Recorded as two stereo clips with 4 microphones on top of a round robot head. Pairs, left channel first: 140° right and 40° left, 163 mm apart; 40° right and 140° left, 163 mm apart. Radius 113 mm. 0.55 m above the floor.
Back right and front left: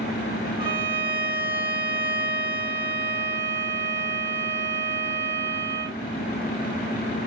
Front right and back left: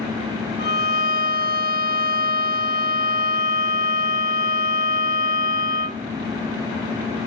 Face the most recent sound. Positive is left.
turn(degrees=-15)